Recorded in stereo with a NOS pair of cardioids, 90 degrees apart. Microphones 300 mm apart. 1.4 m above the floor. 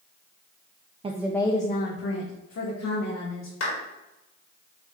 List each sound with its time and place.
1.0 s a woman speaking: 20° right, 0.6 m; by 3.5 s 65° left, 2 m
3.6 s a clap: 55° left, 2 m